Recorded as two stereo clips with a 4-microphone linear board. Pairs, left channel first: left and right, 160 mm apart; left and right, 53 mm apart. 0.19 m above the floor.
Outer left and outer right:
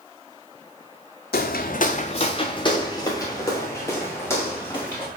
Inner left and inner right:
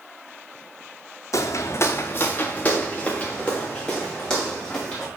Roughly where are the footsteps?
Left.